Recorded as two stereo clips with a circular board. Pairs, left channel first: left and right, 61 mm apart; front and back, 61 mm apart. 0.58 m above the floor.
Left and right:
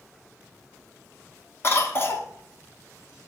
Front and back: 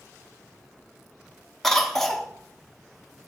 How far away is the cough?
About 0.9 m.